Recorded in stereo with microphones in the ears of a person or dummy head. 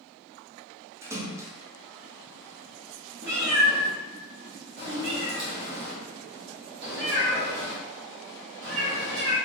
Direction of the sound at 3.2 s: 50° right (ahead or behind).